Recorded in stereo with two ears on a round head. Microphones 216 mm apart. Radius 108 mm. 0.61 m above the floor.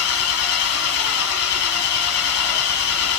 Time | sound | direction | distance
0.0 | an engine running | 65° left (ahead or behind) | 1.2 m